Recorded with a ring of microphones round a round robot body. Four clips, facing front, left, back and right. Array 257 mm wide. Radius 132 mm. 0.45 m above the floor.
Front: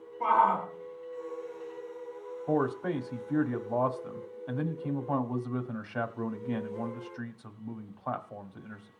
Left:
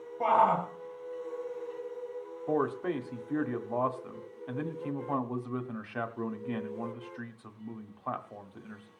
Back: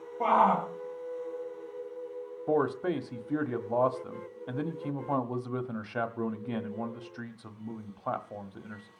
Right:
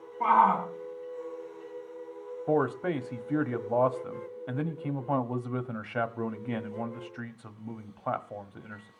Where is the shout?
140° left, 2 m.